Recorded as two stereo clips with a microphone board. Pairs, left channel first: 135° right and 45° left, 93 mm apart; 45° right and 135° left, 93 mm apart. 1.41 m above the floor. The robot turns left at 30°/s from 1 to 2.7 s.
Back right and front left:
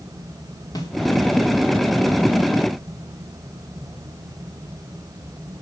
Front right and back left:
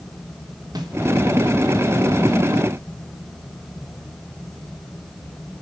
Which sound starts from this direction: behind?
A snare drum, at 0.8 s.